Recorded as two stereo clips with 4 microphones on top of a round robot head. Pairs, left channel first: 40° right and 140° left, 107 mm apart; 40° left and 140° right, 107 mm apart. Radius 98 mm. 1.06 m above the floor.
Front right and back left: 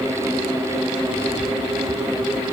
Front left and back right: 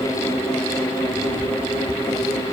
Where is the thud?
I don't hear a thud.